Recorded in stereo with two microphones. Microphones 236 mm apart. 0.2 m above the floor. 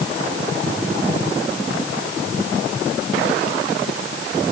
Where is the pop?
No pop in this recording.